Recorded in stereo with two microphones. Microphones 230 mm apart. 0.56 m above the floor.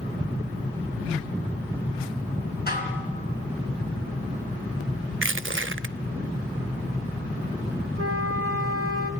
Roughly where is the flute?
Right.